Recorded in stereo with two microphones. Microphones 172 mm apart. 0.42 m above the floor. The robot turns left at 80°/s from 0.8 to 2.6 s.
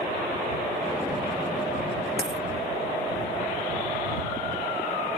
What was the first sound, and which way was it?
A dropped coin, 80° right.